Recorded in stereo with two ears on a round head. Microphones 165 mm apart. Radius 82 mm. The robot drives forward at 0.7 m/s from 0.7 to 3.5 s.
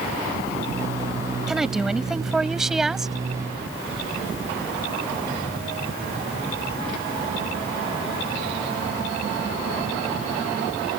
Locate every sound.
1.5 s a woman speaking: centre (ahead or behind)